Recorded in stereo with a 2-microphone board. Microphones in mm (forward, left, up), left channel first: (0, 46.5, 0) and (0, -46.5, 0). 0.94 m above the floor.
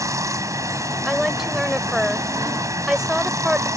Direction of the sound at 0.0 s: 35° right (ahead or behind).